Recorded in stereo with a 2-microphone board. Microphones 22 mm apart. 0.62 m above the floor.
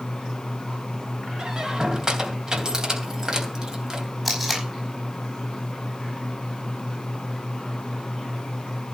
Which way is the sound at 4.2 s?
5° right (ahead or behind).